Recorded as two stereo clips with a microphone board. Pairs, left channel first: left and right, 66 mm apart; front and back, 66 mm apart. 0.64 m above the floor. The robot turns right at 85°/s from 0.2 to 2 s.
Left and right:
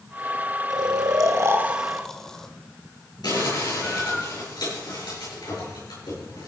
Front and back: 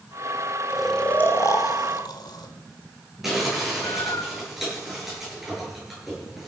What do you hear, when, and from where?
0.7 s snoring: 105° right, 1.3 m; by 4.2 s 5° left, 1.3 m
3.2 s crumpling: 95° left, 8.5 m